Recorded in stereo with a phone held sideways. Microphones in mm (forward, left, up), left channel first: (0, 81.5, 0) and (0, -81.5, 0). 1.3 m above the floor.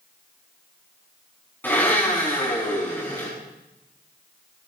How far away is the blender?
About 7.5 m.